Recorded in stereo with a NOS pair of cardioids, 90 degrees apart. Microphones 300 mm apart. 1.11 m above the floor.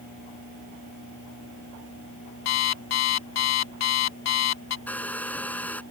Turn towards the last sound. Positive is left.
turn(degrees=5)